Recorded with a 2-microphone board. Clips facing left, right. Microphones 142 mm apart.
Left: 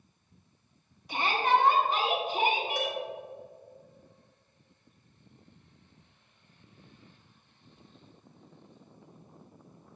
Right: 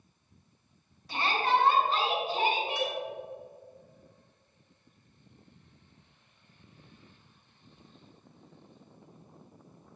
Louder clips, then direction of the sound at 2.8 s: Even; 45° left (ahead or behind).